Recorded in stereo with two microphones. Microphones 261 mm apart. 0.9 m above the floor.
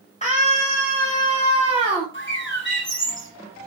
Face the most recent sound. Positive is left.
turn(degrees=45)  # may be behind; listen again after turning